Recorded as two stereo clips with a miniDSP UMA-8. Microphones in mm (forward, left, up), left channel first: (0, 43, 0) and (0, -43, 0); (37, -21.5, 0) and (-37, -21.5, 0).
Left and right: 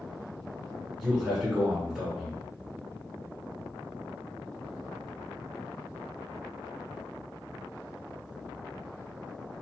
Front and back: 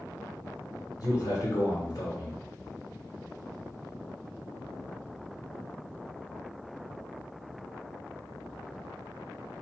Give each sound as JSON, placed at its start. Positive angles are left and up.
{"t": 1.0, "sound": "a man speaking", "azimuth_deg": -5, "distance_m": 1.7}